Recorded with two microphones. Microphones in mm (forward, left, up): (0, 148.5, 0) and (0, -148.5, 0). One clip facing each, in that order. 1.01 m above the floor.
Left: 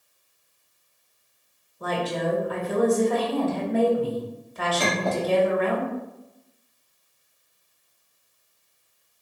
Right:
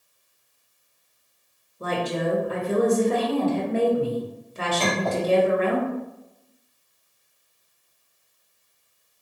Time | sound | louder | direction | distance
1.8 | a woman speaking | right 1 dB | 30° right (ahead or behind) | 1.0 m
4.8 | a clink | right 1 dB | 15° left (ahead or behind) | 1.7 m